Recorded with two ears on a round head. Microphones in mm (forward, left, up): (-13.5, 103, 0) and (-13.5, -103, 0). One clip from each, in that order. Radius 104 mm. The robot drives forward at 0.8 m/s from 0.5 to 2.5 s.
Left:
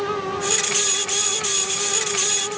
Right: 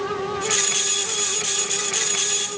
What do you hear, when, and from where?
Only background noise.